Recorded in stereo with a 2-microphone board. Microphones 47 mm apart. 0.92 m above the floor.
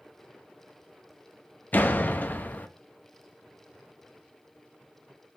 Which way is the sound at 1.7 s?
40° left (ahead or behind).